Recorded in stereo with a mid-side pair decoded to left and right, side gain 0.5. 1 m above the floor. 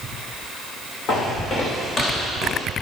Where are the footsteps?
60° left, 6 m; by 2.6 s 40° left, 4.5 m.